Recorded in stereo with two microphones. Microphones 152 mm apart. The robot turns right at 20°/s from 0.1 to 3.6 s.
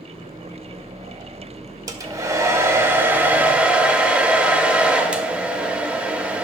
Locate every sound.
1.9 s a hair dryer: 50° right, 0.9 m; by 6.4 s 15° right, 0.9 m